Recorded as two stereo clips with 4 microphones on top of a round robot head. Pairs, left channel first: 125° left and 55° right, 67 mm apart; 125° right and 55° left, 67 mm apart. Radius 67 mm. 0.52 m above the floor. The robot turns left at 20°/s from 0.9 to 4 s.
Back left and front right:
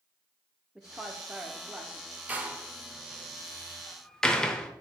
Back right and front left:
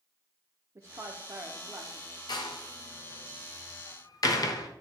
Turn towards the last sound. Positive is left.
turn(degrees=-155)